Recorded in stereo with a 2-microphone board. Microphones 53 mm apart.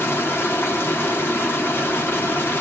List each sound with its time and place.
0.0 s running water: 45° left (ahead or behind), 1.0 m